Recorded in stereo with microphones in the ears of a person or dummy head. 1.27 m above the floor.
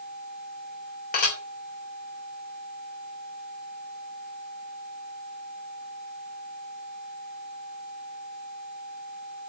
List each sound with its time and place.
1.1 s dishes clattering: 45° left (ahead or behind), 3.5 m